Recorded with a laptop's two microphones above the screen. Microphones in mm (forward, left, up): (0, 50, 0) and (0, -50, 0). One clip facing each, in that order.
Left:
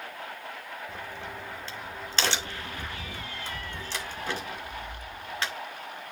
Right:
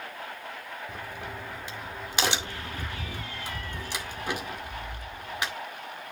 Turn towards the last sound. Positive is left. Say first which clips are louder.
# right 1 dB
turn(degrees=-15)  # may be behind; listen again after turning